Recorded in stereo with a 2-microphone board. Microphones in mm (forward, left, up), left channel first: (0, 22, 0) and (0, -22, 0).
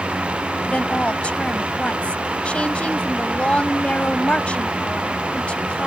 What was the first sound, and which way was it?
A woman speaking, 30° left (ahead or behind).